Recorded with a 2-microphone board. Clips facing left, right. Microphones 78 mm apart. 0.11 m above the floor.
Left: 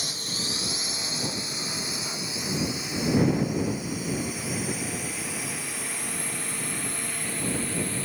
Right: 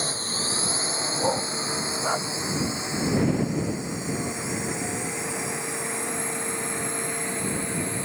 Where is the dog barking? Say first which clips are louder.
Right 10 dB; 55° right (ahead or behind).